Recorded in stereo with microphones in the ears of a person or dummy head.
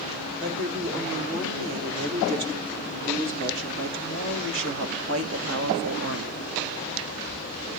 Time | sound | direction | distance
0.4 | a woman speaking | 60° right (ahead or behind) | 4 m